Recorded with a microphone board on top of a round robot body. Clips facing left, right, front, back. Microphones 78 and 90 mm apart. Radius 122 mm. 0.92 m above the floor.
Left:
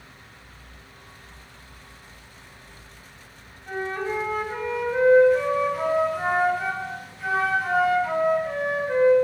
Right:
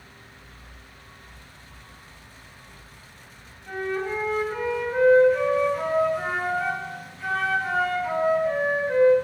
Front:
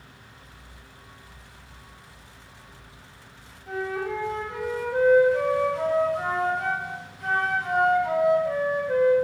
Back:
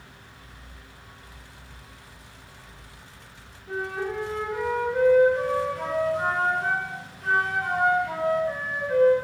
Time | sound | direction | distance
3.7 | a flute | 5° left | 3.5 m